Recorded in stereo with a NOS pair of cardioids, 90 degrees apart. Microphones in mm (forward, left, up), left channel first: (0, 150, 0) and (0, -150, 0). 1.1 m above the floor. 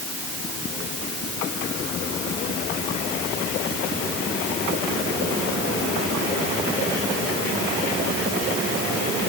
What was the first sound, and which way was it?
Only background noise.